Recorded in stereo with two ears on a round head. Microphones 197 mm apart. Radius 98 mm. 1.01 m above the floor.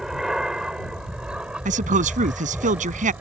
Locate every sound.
0.0 s an aircraft: centre (ahead or behind); by 3.2 s 5° right (ahead or behind)
1.6 s a man speaking: 35° right (ahead or behind)